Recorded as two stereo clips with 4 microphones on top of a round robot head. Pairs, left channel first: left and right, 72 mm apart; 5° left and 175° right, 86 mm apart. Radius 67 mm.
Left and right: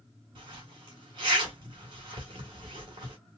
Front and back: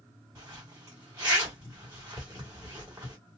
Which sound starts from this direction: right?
A zipper, at 0.3 s.